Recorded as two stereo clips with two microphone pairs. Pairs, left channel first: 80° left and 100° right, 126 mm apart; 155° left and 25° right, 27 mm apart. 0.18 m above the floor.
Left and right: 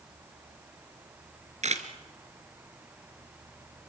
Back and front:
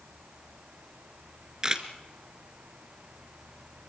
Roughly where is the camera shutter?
Right.